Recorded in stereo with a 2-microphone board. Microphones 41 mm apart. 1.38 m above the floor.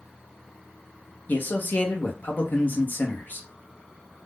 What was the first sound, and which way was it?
A man speaking, 45° left (ahead or behind).